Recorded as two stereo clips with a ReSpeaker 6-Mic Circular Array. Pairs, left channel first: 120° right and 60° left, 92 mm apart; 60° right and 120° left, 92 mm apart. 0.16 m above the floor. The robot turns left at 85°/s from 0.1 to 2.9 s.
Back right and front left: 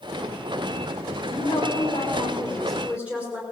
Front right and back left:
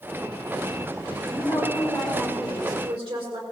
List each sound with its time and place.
1.3 s a woman speaking: 90° right, 7 m; by 3.4 s 135° left, 7 m